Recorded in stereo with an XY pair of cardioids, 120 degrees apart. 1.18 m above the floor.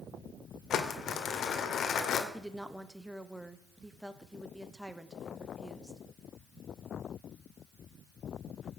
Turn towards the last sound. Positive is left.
turn(degrees=-5)